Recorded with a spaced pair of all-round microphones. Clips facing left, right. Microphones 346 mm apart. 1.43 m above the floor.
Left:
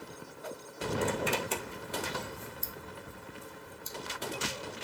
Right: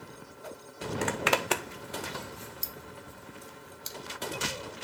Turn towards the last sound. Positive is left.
turn(degrees=-70)  # may be behind; listen again after turning